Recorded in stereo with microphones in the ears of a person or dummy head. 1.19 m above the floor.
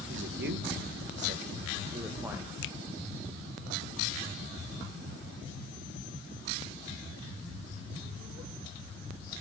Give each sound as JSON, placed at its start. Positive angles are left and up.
{"t": 0.1, "sound": "a man speaking", "side_deg": -65, "distance_m": 1.7}
{"t": 2.6, "sound": "a finger snap", "side_deg": 70, "distance_m": 1.0}